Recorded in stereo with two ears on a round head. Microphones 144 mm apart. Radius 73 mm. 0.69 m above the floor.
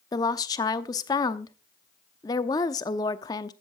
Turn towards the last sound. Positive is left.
turn(degrees=25)  # may be behind; listen again after turning